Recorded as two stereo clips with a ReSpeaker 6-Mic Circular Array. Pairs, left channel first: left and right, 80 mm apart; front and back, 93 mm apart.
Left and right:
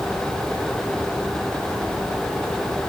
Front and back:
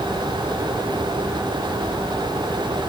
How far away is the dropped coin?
I don't hear a dropped coin.